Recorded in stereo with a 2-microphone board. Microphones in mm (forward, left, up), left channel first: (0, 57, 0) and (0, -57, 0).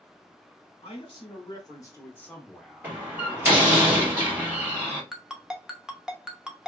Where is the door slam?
15° right (ahead or behind), 1.4 m.